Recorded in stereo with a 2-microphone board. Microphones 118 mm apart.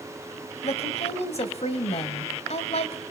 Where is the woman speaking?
65° left (ahead or behind), 2.5 m.